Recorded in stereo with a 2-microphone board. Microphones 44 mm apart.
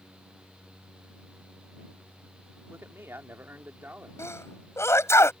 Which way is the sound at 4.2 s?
80° left.